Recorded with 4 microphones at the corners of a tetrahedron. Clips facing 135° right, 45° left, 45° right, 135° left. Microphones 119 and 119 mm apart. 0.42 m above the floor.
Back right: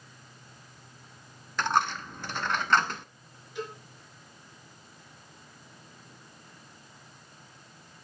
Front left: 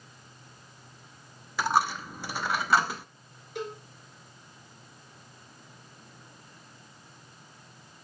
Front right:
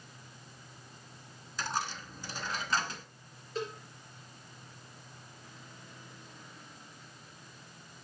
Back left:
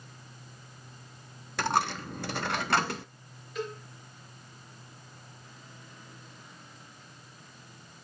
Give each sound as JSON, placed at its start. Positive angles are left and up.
{"t": 1.6, "sound": "a dropped coin", "azimuth_deg": 125, "distance_m": 0.6}
{"t": 3.5, "sound": "a cowbell", "azimuth_deg": 15, "distance_m": 3.5}